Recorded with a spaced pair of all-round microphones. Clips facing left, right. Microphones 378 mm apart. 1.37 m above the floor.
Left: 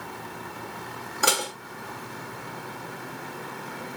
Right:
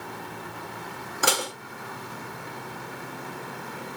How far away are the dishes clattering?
About 1.7 m.